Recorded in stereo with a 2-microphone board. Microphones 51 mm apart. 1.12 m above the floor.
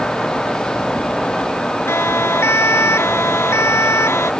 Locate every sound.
1.9 s a siren: 60° left (ahead or behind); by 4.3 s 65° left (ahead or behind)